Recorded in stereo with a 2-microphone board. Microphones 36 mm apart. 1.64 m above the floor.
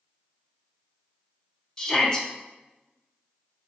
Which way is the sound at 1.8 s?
20° left (ahead or behind).